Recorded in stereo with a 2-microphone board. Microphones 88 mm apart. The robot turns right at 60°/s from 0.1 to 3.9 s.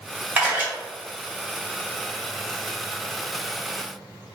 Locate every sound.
0.4 s a camera shutter: 20° right (ahead or behind), 1.6 m